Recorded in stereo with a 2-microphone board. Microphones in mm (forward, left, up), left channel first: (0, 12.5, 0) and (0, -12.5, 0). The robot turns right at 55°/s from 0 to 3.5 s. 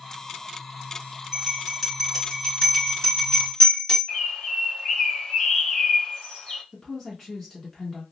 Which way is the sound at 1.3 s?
10° right (ahead or behind).